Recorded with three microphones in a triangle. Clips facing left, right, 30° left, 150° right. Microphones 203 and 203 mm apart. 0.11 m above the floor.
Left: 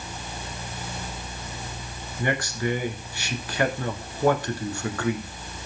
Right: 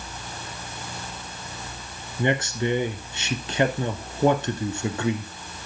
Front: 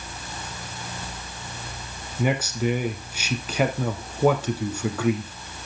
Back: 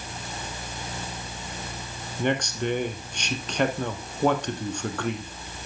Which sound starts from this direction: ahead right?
A man speaking, at 2.2 s.